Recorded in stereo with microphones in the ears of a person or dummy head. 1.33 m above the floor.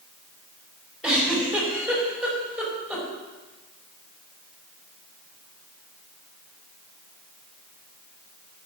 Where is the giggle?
5° right (ahead or behind), 4.5 m.